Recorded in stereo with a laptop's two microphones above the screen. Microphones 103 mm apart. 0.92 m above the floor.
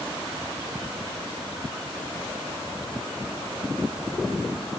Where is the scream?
No scream in this recording.